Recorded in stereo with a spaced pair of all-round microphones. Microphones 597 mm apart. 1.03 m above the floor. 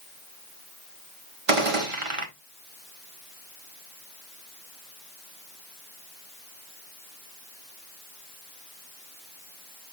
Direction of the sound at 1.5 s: 55° right (ahead or behind).